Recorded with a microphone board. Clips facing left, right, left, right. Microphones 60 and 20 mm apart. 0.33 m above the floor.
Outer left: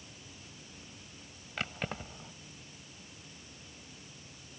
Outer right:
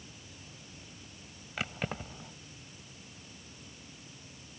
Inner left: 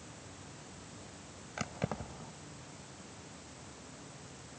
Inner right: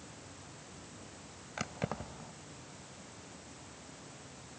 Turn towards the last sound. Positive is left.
turn(degrees=-5)  # may be behind; listen again after turning